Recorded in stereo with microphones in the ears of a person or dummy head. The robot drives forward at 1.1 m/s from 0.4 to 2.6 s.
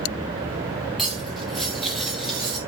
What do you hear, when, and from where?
1.0 s cutlery clinking: centre (ahead or behind), 1.9 m; by 2.6 s 5° right (ahead or behind), 0.7 m